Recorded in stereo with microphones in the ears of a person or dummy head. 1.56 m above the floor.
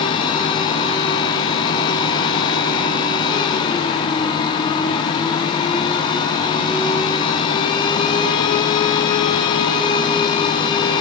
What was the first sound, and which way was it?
A fan, 30° left (ahead or behind).